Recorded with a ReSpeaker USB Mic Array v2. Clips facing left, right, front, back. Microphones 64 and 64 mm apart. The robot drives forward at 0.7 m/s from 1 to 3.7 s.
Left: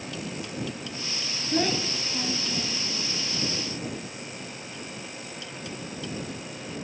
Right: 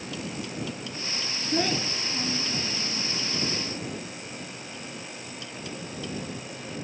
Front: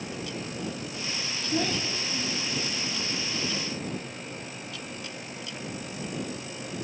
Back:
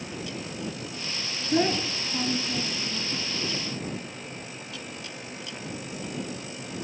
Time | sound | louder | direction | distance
1.5 | a child speaking | left 1 dB, back 5 dB | straight behind | 0.5 m